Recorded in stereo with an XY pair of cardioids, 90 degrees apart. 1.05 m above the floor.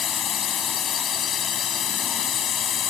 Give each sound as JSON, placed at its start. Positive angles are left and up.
{"t": 0.0, "sound": "a drone", "azimuth_deg": 55}